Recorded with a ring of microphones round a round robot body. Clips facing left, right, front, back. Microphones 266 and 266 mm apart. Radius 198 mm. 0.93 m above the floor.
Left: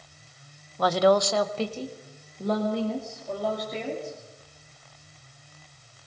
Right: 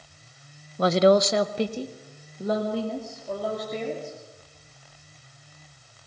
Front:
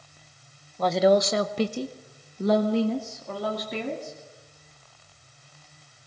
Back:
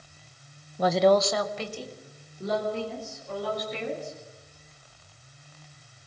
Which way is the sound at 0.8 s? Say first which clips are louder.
Right 3 dB, front 1 dB; 115° right.